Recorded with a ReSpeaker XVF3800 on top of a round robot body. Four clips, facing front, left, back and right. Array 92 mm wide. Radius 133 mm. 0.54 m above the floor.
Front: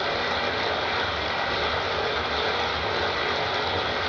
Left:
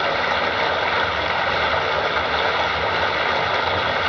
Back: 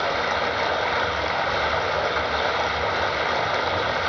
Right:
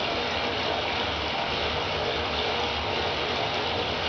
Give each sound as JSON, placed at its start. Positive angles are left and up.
{"t": 0.0, "sound": "running water", "azimuth_deg": 105, "distance_m": 2.0}